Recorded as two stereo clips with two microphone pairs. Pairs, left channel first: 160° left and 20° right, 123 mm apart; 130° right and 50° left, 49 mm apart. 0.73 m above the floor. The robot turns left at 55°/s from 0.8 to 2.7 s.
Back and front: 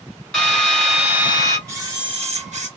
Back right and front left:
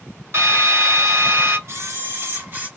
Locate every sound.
0.3 s a drill: 75° left, 3.5 m; by 1.6 s 30° left, 3.5 m
1.7 s a camera shutter: 45° left, 3 m; by 2.7 s 10° right, 3 m